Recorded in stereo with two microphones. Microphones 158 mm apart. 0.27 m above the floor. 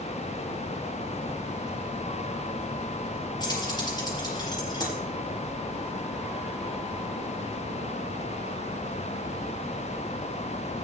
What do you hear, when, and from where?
3.4 s keys jangling: 25° left (ahead or behind), 5 m